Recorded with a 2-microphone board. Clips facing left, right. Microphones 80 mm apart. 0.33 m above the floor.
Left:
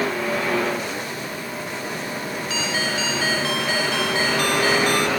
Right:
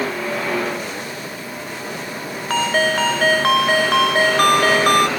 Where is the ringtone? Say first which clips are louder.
Right 9 dB; 60° right (ahead or behind).